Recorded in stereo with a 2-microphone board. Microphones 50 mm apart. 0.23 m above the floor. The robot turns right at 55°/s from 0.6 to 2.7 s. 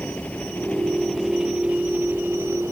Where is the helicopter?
30° left (ahead or behind); by 2.7 s 75° right (ahead or behind).